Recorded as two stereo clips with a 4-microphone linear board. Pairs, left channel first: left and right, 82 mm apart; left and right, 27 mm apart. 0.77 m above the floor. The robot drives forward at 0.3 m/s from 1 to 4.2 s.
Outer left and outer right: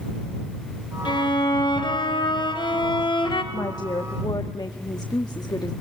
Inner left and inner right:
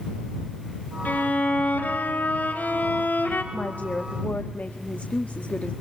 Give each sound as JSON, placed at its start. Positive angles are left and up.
{"t": 1.1, "sound": "a violin", "side_deg": 75, "distance_m": 5.0}
{"t": 3.5, "sound": "a woman speaking", "side_deg": 60, "distance_m": 1.2}